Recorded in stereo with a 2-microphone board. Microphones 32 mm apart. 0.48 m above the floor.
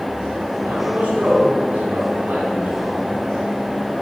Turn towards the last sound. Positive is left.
turn(degrees=-80)